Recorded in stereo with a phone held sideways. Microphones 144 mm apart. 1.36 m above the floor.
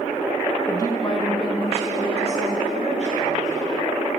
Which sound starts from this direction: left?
A woman speaking, at 0.7 s.